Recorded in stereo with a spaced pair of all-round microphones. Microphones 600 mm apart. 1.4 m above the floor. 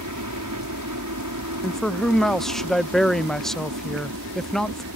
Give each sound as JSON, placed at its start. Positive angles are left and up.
{"t": 0.0, "sound": "a helicopter", "side_deg": -30}
{"t": 1.6, "sound": "a man speaking", "side_deg": 0}